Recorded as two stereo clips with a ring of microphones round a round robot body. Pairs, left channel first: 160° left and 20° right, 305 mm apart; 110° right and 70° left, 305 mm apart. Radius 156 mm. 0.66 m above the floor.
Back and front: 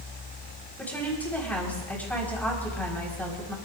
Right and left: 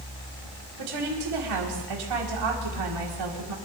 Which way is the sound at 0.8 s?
75° left.